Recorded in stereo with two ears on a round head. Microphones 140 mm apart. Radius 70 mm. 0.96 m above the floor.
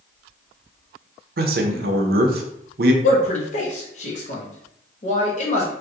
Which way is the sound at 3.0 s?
50° left (ahead or behind).